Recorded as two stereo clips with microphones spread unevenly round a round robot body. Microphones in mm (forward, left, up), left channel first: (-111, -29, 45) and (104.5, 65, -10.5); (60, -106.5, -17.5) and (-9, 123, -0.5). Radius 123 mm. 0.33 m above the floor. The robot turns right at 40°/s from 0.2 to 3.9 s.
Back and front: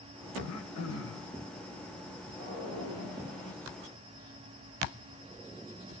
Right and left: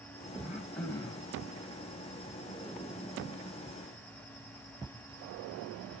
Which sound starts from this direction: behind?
Throat clearing, at 0.4 s.